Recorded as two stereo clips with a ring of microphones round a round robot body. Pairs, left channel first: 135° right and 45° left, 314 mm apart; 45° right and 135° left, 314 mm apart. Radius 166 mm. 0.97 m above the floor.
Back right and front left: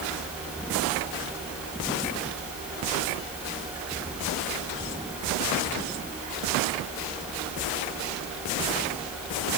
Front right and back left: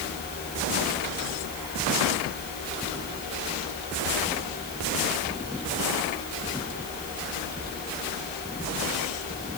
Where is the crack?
I don't hear a crack.